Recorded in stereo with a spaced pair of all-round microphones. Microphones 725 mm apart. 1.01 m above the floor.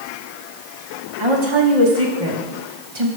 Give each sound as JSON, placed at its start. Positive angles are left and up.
{"t": 1.2, "sound": "a woman speaking", "side_deg": -40, "distance_m": 1.4}